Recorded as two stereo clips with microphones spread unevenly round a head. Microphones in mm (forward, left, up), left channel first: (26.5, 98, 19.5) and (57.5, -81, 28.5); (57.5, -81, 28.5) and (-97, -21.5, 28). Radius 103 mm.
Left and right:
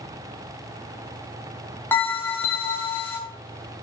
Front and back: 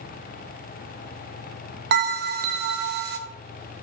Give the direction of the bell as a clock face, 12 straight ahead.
6 o'clock.